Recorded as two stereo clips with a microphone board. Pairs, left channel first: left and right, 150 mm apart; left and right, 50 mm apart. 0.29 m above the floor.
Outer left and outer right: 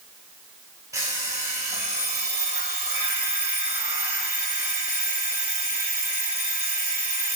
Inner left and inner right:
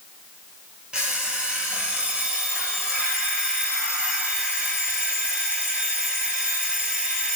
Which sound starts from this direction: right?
An alarm clock, at 0.9 s.